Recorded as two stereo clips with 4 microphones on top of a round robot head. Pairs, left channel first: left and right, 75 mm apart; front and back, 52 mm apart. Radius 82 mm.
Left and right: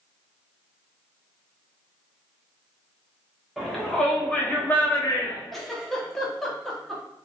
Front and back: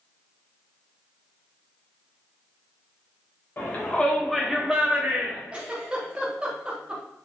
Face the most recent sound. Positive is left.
turn(degrees=170)